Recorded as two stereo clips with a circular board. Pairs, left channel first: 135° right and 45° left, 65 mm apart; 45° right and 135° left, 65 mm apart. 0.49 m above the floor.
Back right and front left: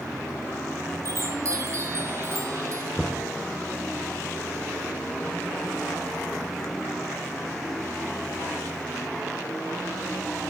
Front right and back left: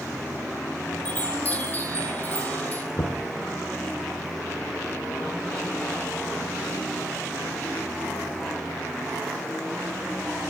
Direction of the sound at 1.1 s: 15° left.